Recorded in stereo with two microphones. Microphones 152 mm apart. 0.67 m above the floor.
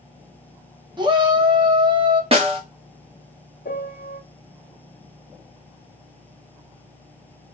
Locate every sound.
1.0 s a shout: 30° right (ahead or behind), 0.9 m
2.3 s a snare drum: 40° right (ahead or behind), 0.8 m
3.6 s a piano: 75° left (ahead or behind), 0.6 m